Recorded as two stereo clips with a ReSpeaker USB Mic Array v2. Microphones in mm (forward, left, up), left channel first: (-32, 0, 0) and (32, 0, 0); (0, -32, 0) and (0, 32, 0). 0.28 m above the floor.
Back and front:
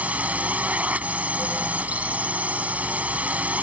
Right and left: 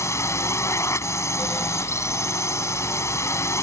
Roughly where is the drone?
Ahead right.